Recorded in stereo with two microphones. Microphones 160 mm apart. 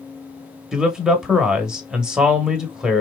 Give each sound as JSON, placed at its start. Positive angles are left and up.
{"t": 0.7, "sound": "a man speaking", "side_deg": -5, "distance_m": 1.1}